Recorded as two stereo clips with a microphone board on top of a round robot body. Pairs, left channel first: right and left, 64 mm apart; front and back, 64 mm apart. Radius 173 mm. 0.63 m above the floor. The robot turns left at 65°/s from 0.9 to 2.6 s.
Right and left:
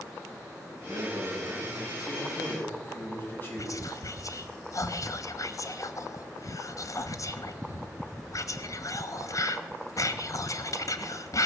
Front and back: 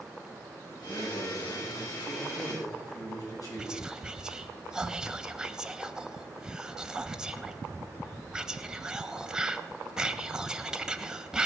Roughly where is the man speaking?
Left.